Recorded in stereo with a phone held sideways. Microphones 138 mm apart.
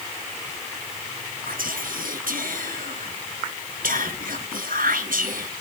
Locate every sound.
1.5 s whispering: 85° right, 1.2 m